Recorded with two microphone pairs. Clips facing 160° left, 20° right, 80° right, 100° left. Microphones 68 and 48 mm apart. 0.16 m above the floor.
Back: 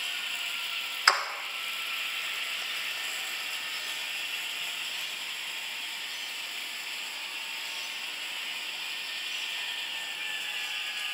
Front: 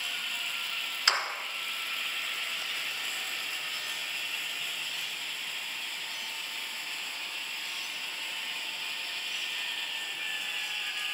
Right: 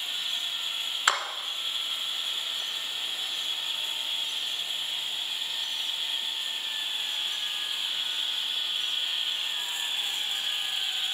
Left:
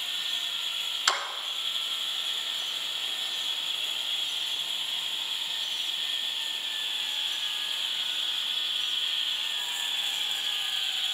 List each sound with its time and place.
1.1 s a clap: 145° right, 1.7 m